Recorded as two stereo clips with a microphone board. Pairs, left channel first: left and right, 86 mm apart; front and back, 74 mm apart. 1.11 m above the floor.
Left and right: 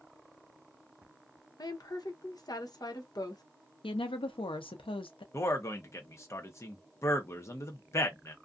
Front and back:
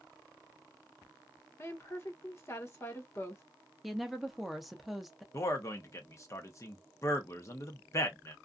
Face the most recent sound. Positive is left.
turn(degrees=40)